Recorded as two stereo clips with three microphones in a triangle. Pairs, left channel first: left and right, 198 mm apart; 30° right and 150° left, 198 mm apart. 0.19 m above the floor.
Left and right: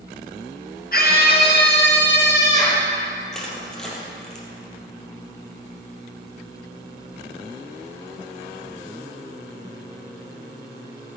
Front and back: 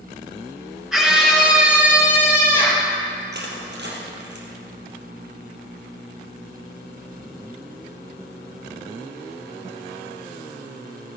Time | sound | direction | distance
0.9 | a scream | 65° left | 3 m
3.3 | crushing | 175° left | 3 m